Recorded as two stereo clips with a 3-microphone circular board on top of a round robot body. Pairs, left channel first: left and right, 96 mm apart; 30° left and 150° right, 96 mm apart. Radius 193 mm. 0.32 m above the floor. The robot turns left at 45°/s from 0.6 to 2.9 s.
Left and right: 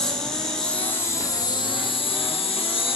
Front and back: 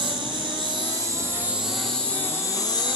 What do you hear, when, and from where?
0.0 s an insect: 175° left, 2 m; by 3.0 s 70° left, 2 m